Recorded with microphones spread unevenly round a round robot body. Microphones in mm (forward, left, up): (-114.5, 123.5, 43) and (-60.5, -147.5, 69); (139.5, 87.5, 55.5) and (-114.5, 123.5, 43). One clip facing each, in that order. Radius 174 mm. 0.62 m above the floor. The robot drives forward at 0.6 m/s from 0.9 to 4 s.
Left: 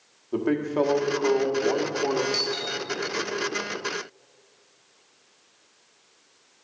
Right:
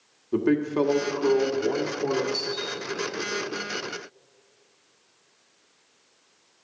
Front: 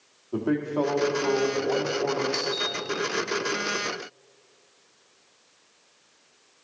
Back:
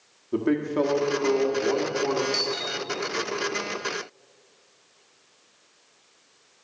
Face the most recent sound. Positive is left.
turn(degrees=105)